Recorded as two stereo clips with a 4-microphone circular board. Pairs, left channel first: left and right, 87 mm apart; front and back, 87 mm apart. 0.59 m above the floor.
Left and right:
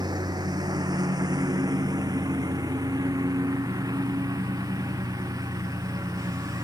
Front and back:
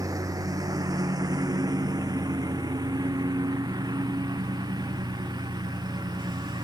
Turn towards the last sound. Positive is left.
turn(degrees=-140)